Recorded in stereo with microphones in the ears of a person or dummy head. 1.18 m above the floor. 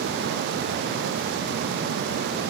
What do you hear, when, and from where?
Only background noise.